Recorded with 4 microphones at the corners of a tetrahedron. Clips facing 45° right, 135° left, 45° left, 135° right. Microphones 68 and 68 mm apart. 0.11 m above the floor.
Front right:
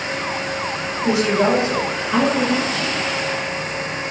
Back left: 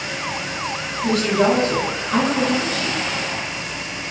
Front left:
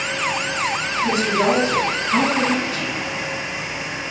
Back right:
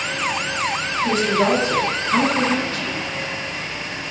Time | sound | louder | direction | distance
1.0 | a woman speaking | even, even | 15° right | 1.1 m